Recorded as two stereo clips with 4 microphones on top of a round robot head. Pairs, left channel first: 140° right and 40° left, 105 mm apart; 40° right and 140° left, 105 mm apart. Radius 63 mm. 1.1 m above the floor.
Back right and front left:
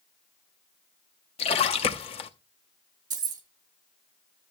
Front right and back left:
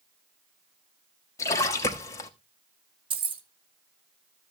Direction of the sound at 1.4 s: 105° right.